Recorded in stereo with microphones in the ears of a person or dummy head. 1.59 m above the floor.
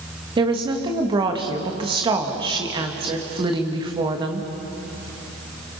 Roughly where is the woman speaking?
Right.